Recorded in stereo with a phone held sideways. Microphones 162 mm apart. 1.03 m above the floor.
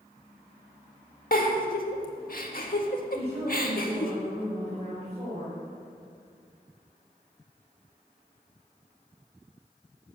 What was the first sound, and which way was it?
A giggle, 60° left (ahead or behind).